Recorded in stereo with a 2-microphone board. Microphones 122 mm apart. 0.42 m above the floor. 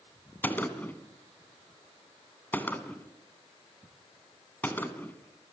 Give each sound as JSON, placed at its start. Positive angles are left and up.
{"t": 0.4, "sound": "a gunshot", "side_deg": 15, "distance_m": 1.8}